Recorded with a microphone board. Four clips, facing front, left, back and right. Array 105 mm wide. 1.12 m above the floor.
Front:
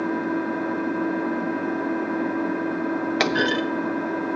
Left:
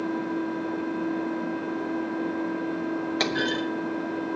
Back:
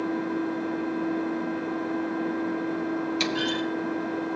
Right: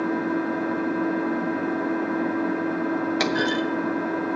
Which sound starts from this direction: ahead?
A clunk, at 3.2 s.